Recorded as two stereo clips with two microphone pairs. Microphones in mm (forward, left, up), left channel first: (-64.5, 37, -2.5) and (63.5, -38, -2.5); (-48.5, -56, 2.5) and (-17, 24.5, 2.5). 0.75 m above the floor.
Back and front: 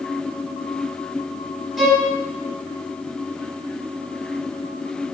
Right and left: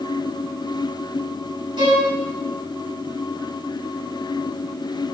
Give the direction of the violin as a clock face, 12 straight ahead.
10 o'clock.